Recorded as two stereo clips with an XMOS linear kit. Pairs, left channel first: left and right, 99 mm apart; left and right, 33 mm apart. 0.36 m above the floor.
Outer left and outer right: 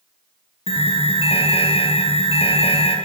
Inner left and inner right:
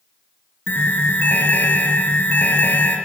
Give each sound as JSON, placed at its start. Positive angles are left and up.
{"t": 0.7, "sound": "an alarm", "side_deg": 80, "distance_m": 6.0}